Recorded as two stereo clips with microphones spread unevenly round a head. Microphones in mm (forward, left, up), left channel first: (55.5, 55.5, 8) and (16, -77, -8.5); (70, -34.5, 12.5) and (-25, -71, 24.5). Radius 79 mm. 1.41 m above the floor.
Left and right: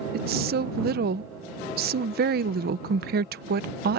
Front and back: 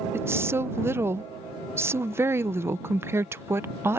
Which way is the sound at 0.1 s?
95° right.